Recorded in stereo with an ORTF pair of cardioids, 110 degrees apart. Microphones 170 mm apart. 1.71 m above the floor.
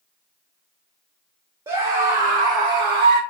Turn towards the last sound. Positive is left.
turn(degrees=-80)